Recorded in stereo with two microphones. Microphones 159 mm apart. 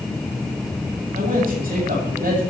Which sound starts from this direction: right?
A man speaking, at 1.1 s.